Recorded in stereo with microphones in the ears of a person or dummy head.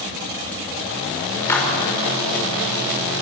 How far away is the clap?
About 5.5 m.